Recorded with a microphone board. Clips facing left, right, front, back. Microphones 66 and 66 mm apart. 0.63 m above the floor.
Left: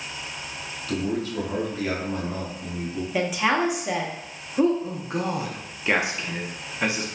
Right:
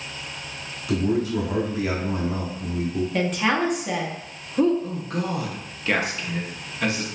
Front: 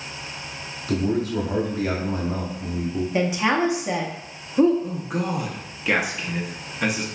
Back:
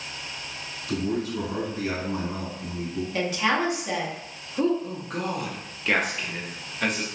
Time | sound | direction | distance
0.9 | a man speaking | 15° right | 0.9 m
3.1 | a woman speaking | 15° left | 0.5 m
4.8 | a man speaking | 70° left | 0.5 m